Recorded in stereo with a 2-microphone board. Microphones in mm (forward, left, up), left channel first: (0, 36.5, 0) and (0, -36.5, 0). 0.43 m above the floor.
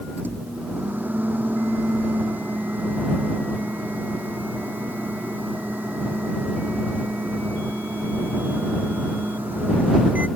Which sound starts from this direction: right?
A microwave, at 0.2 s.